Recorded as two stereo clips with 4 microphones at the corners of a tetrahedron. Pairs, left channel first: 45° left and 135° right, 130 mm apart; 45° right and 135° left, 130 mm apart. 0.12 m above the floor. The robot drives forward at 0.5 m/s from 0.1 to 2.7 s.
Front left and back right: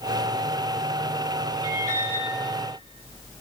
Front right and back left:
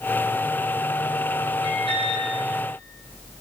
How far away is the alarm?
About 4.5 m.